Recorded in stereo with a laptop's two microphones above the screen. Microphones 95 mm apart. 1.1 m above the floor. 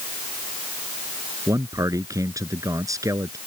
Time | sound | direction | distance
1.5 | a man speaking | 35° right (ahead or behind) | ?